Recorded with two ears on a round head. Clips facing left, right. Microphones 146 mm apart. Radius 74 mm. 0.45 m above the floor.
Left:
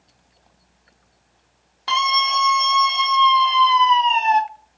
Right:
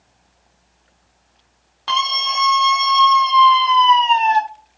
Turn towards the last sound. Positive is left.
turn(degrees=10)  # may be behind; listen again after turning